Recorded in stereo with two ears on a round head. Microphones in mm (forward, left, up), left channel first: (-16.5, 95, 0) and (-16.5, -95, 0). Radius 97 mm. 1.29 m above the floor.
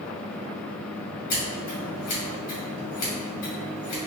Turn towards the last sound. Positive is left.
turn(degrees=40)  # may be behind; listen again after turning